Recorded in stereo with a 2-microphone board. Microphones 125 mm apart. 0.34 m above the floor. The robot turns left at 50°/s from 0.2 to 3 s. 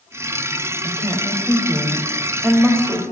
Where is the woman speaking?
70° left, 1.1 m; by 3.0 s 40° right, 1.1 m.